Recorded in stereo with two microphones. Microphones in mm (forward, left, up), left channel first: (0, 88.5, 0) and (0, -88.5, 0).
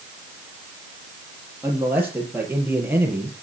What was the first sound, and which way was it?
A man speaking, 10° right (ahead or behind).